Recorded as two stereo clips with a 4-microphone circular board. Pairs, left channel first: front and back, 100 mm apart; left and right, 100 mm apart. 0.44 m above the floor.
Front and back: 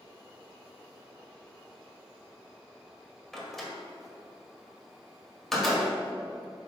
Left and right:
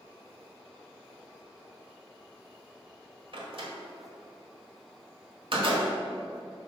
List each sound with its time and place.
3.3 s a door slam: 85° right, 1.6 m